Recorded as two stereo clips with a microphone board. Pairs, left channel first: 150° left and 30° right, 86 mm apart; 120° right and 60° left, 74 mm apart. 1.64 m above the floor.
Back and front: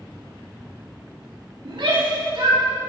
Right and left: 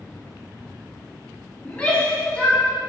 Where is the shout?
45° right, 5 m.